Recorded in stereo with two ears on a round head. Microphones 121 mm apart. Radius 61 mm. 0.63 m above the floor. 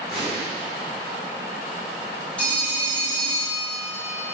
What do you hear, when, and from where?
0.1 s an explosion: centre (ahead or behind), 1.5 m
2.4 s a phone ringing: 10° left (ahead or behind), 1.2 m